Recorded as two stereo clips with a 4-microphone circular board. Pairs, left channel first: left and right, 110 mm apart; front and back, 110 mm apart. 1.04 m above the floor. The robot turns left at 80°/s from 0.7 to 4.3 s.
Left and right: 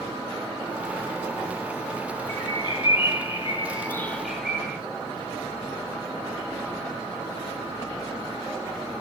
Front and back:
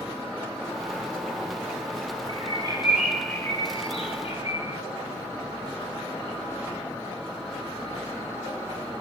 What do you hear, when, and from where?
2.3 s a bird: 155° left, 1.3 m; by 4.8 s 5° right, 1.3 m